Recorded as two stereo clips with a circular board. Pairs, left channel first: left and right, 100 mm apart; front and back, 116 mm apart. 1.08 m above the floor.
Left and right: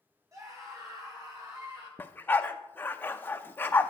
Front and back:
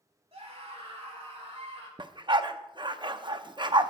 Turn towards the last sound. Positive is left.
turn(degrees=150)